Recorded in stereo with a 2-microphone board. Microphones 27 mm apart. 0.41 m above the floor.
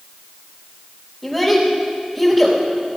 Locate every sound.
1.2 s a child speaking: centre (ahead or behind), 1.4 m